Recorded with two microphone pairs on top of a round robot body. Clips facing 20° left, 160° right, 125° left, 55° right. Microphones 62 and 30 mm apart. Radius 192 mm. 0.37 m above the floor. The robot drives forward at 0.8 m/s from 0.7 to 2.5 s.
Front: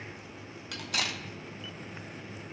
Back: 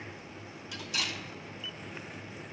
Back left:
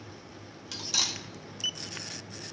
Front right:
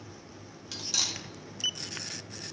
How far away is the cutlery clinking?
About 2 m.